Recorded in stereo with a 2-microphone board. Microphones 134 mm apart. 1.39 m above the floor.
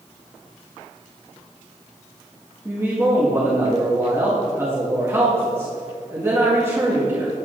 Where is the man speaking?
20° right (ahead or behind), 2 m.